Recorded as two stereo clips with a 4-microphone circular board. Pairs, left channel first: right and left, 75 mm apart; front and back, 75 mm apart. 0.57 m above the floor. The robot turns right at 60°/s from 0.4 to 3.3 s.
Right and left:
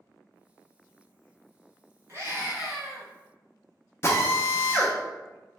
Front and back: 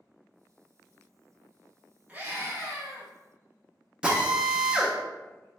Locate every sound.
2.1 s a scream: 120° left, 0.9 m; by 3.1 s straight behind, 0.9 m
4.0 s a drill: 110° right, 0.5 m